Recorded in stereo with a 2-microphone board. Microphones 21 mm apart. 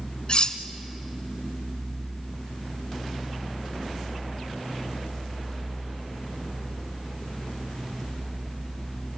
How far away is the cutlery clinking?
About 1.1 m.